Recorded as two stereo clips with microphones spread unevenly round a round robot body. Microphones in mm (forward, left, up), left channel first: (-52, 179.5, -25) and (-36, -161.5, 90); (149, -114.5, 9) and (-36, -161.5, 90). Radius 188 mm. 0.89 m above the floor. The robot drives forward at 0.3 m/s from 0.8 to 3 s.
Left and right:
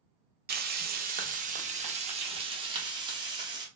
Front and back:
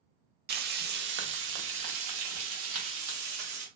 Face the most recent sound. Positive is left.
turn(degrees=-175)